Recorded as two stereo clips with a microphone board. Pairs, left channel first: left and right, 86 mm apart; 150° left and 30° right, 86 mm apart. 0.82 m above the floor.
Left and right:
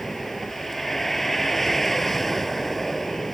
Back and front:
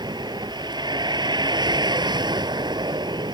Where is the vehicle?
5° left.